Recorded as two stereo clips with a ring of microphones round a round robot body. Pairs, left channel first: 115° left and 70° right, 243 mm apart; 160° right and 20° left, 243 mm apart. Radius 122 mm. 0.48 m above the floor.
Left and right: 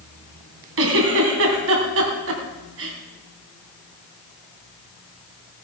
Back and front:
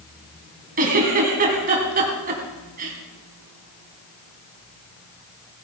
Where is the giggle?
35° right, 3 m.